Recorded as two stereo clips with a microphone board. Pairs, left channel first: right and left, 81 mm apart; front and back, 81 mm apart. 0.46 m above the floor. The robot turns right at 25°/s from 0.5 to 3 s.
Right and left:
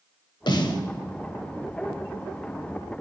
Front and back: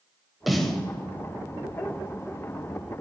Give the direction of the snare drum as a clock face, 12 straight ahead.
3 o'clock.